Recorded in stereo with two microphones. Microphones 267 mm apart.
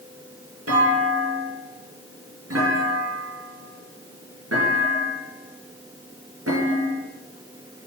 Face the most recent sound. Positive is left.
turn(degrees=-60)  # may be behind; listen again after turning